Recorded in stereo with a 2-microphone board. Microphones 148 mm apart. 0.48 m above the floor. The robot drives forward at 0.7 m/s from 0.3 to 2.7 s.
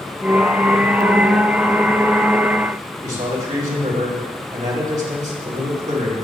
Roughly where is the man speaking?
Right.